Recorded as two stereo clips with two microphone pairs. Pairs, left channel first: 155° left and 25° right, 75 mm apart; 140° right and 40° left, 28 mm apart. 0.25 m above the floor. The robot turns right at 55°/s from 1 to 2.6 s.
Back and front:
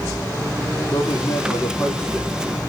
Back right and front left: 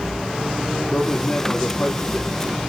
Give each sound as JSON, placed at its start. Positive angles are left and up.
{"t": 0.9, "sound": "a man speaking", "azimuth_deg": 180, "distance_m": 6.0}